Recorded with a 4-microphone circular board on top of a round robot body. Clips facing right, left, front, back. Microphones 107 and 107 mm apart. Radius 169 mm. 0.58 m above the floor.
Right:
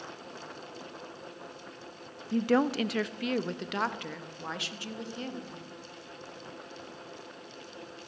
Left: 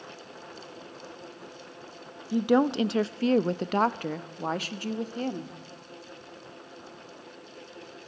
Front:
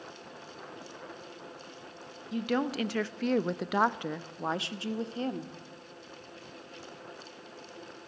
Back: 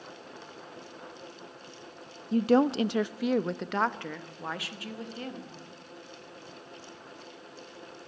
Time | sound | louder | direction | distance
2.3 | a woman speaking | left 3 dB, back 7 dB | 165° left | 1.0 m